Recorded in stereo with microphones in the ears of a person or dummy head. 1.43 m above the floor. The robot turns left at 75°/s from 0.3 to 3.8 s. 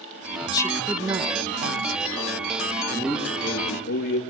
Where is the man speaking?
160° right, 2.5 m; by 4.2 s 135° left, 2.5 m.